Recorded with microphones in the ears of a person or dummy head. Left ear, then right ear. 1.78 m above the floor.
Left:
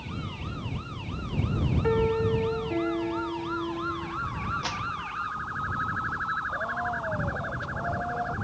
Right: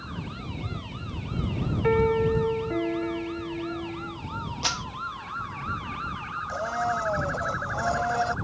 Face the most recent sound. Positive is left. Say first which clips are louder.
# right 2 dB
turn(degrees=-65)  # may be behind; listen again after turning